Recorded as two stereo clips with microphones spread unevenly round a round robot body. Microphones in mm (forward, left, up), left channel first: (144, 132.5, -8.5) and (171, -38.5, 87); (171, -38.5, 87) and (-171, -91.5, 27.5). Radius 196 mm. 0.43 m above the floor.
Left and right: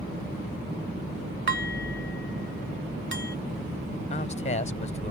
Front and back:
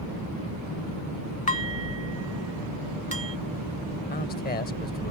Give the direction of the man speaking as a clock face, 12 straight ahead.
9 o'clock.